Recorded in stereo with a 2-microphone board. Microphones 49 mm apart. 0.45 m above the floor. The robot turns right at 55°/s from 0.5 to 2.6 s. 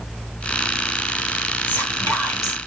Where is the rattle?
No rattle in this recording.